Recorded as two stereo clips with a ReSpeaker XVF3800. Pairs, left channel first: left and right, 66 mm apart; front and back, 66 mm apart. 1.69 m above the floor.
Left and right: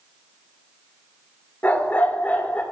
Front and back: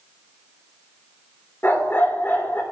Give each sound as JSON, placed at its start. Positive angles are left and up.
{"t": 1.6, "sound": "a dog barking", "azimuth_deg": 45, "distance_m": 1.7}